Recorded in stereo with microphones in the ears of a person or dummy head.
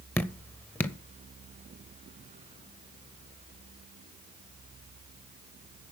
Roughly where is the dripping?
Centre.